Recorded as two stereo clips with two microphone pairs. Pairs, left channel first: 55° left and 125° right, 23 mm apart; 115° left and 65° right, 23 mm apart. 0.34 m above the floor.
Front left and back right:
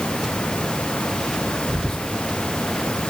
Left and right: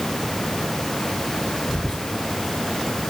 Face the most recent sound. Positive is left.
turn(degrees=60)